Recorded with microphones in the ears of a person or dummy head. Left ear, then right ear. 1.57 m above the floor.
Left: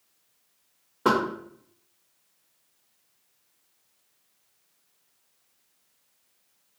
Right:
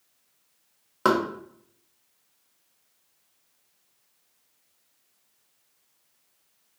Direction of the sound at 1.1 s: 60° right (ahead or behind).